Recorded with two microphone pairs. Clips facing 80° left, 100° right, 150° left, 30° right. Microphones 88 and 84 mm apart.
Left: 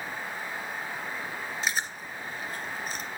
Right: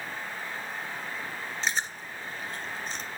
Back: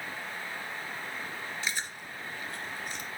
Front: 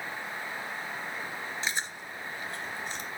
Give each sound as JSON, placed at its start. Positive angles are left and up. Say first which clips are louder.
{"t": 1.6, "sound": "chewing", "louder": "right 1 dB, front 2 dB", "azimuth_deg": 5, "distance_m": 1.6}